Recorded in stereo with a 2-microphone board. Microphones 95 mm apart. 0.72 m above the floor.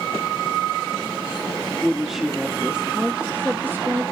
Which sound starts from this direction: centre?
A woman speaking, at 1.8 s.